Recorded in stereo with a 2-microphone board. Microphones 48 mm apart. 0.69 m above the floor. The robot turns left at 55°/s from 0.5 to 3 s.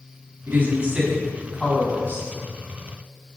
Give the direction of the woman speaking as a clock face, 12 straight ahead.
4 o'clock.